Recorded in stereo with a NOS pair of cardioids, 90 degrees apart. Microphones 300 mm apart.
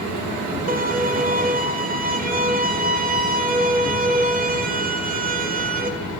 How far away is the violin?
About 0.8 m.